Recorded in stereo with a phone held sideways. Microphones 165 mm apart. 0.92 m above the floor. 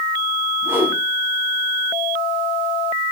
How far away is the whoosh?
About 3.5 m.